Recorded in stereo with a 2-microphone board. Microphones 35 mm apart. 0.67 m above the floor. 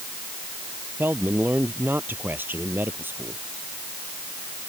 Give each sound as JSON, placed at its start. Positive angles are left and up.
{"t": 1.0, "sound": "a man speaking", "side_deg": -70}